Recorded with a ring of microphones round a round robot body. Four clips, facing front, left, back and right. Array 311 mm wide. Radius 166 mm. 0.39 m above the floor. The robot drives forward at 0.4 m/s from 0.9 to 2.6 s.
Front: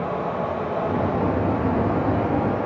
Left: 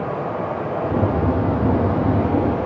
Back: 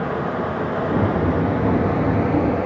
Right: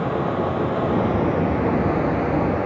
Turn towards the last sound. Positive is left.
turn(degrees=-135)